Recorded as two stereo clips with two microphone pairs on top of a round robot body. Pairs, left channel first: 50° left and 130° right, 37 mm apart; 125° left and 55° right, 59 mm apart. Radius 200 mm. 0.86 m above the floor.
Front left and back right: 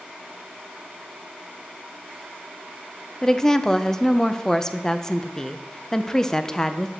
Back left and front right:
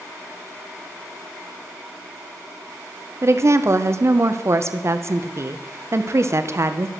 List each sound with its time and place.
3.2 s a woman speaking: 30° right, 0.8 m